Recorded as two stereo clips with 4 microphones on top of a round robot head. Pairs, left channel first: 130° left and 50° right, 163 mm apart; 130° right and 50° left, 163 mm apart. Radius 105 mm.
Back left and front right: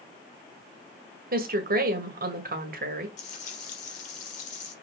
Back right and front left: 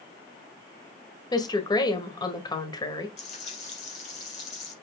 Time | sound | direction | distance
1.3 | a woman speaking | 65° right | 1.8 m
3.2 | frying | straight behind | 3.5 m